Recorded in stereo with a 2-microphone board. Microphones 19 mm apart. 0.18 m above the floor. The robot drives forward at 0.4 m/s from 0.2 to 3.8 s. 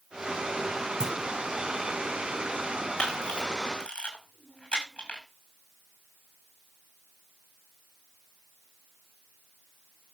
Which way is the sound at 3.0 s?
80° left.